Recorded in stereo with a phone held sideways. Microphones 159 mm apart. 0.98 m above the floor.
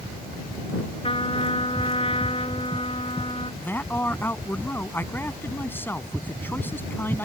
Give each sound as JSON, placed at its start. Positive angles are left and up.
{"t": 1.0, "sound": "a trumpet", "side_deg": 35}
{"t": 3.6, "sound": "a man speaking", "side_deg": 15}